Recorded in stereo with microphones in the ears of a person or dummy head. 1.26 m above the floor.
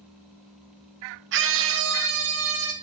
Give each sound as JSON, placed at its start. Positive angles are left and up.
{"t": 1.3, "sound": "a scream", "side_deg": -60, "distance_m": 0.7}